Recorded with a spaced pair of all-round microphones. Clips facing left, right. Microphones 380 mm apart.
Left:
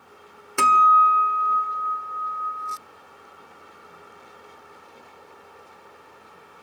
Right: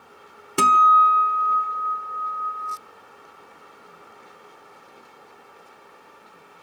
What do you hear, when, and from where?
0.6 s a guitar: 50° right (ahead or behind), 1.0 m